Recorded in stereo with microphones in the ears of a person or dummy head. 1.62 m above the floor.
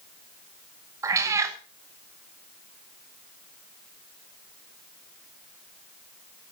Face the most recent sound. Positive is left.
turn(degrees=-20)  # may be behind; listen again after turning